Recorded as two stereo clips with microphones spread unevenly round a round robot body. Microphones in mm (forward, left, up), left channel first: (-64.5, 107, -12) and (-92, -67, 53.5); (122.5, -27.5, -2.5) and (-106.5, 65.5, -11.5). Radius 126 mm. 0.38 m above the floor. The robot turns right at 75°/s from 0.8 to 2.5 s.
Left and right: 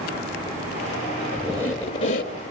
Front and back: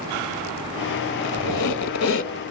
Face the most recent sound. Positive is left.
turn(degrees=45)